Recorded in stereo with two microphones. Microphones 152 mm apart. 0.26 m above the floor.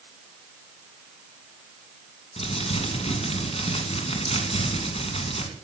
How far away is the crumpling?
About 2.5 m.